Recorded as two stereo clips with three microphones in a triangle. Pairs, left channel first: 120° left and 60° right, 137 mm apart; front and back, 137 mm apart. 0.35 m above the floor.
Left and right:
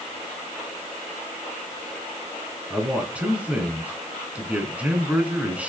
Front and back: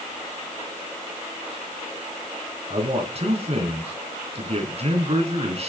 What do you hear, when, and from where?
2.7 s a man speaking: 140° right, 3.5 m